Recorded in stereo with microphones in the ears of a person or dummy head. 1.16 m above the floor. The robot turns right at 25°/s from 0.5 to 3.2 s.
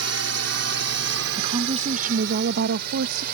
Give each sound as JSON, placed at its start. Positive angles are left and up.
{"t": 0.0, "sound": "a drone", "side_deg": -70}
{"t": 1.4, "sound": "a woman speaking", "azimuth_deg": -150}